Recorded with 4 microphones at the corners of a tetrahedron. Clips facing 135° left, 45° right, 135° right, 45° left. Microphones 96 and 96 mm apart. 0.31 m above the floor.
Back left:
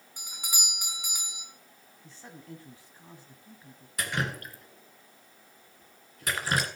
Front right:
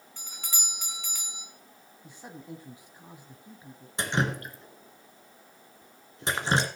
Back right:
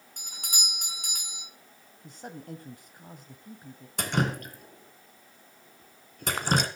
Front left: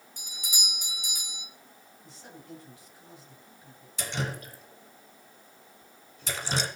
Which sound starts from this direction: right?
Dripping, at 4.0 s.